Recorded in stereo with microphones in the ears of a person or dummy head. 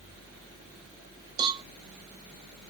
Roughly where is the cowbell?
Right.